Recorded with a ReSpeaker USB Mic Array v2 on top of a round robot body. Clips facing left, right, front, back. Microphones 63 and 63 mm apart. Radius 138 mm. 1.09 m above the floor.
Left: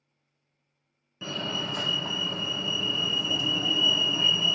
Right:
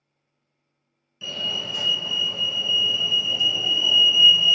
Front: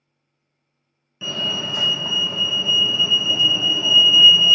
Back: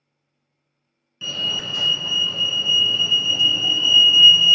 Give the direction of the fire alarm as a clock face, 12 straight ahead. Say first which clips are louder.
Right 1 dB, front 2 dB; 10 o'clock.